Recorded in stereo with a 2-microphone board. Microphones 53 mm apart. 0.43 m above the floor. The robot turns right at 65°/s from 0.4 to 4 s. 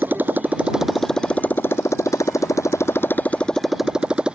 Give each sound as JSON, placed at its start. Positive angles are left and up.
{"t": 0.0, "sound": "a motorcycle", "azimuth_deg": -35}